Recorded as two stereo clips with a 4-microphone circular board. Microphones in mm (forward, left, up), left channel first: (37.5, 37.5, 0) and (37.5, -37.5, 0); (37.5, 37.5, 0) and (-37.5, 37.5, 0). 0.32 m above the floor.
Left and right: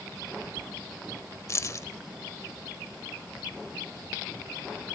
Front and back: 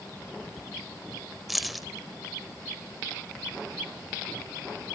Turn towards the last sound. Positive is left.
turn(degrees=90)